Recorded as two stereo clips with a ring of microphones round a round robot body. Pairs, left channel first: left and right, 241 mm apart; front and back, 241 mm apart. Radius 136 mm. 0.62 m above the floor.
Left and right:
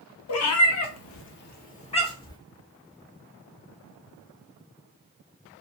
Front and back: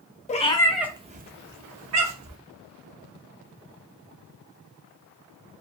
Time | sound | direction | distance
0.3 | a cat meowing | 60° left | 0.7 m